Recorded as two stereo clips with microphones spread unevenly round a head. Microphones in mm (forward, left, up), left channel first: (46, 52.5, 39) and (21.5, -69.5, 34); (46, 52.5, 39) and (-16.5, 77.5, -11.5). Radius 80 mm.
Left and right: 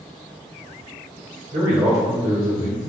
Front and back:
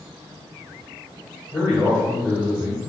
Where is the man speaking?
100° right, 1.2 m.